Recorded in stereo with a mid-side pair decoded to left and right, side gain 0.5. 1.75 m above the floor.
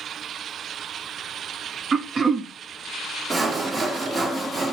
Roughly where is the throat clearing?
Ahead right.